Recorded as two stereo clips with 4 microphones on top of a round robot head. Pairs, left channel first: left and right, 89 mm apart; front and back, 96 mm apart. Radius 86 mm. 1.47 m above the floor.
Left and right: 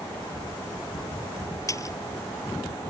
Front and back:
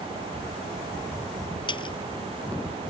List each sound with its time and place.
1.7 s a splash: 35° left